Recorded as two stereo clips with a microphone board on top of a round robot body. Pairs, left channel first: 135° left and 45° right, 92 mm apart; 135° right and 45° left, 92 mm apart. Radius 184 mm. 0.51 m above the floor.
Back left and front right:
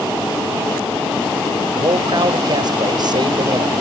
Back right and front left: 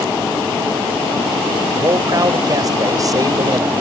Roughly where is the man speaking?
Ahead.